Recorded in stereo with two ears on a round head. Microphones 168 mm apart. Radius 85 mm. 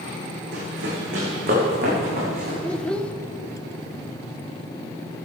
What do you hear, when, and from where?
0.5 s running footsteps: 60° right (ahead or behind), 5 m; by 2.5 s 50° right (ahead or behind), 6 m
2.6 s a child speaking: 5° left (ahead or behind), 0.7 m